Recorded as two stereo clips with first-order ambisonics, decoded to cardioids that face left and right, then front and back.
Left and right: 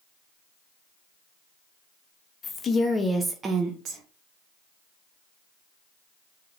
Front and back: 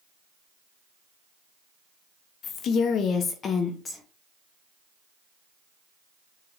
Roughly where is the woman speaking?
Ahead left.